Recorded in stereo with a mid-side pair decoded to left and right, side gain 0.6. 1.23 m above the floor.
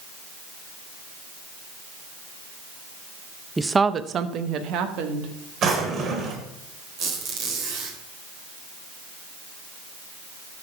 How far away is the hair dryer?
I don't hear a hair dryer.